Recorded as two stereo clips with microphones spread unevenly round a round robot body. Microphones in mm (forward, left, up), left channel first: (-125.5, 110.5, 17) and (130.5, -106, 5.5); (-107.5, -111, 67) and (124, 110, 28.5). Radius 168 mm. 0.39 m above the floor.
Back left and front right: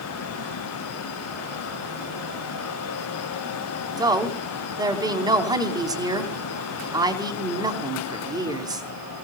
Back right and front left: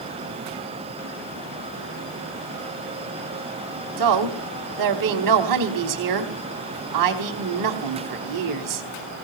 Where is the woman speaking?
40° left, 3 m.